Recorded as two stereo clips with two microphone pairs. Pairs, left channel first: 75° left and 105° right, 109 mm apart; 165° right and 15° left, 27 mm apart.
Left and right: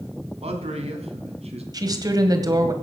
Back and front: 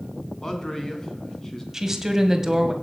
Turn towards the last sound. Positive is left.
turn(degrees=-55)